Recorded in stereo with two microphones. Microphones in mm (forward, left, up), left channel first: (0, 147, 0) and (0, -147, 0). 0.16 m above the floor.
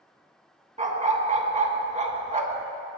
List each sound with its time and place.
0.8 s a dog barking: 25° right (ahead or behind), 0.5 m